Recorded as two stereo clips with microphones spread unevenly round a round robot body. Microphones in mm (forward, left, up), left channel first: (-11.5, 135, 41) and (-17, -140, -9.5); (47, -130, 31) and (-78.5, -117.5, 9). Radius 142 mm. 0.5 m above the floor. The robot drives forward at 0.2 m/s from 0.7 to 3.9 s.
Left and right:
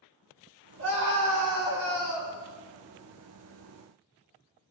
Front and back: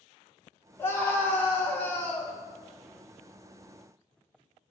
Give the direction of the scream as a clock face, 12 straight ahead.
3 o'clock.